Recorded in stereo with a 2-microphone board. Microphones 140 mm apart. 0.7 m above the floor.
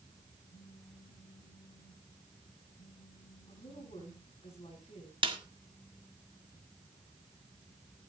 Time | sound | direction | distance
0.5 | a phone buzzing | 80° left | 8.5 m
3.5 | a woman speaking | 45° left (ahead or behind) | 7 m
5.2 | a snare drum | 40° right (ahead or behind) | 1.7 m